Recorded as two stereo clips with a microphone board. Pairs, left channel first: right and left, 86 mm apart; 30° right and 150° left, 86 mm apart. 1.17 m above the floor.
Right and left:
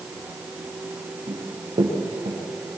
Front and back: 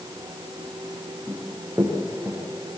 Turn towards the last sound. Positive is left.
turn(degrees=80)